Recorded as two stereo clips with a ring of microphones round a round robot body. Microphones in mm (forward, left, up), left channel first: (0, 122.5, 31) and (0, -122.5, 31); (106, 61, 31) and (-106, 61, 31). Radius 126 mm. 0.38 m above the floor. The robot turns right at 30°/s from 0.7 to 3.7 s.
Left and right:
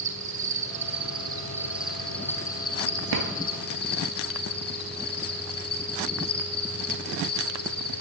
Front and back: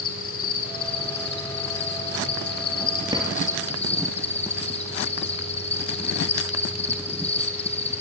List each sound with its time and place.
0.0 s an insect: 40° right, 3 m; by 8.0 s 50° left, 3 m
3.1 s a drawer: 105° right, 1.9 m; by 3.3 s 100° right, 1.9 m